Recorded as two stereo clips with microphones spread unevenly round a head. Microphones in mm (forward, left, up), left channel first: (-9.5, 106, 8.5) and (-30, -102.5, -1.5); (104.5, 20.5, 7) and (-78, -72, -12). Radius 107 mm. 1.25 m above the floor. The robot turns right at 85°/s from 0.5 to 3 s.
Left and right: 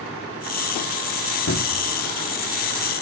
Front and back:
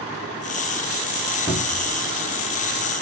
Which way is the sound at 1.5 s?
95° left.